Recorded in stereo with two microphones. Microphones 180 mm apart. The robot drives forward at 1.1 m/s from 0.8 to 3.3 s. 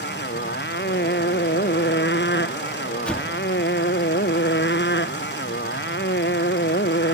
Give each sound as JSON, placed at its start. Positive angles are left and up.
{"t": 0.0, "sound": "a motorcycle", "side_deg": 75}
{"t": 3.1, "sound": "an explosion", "side_deg": 5}